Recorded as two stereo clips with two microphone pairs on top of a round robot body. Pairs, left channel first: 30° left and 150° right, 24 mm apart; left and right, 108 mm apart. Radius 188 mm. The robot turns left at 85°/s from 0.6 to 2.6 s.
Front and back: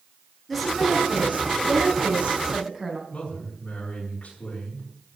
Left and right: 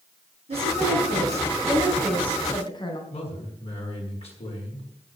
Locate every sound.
0.5 s a woman speaking: 55° right, 4 m; by 3.0 s 135° left, 4 m
3.1 s a man speaking: 70° left, 7 m